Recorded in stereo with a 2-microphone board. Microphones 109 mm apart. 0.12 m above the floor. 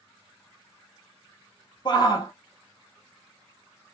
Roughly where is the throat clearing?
No throat clearing in this recording.